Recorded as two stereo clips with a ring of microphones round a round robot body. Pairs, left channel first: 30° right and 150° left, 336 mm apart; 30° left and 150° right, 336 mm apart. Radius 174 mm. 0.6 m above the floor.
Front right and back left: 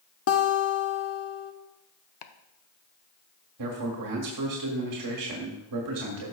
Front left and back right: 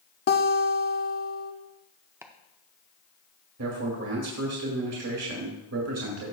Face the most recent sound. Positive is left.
turn(degrees=170)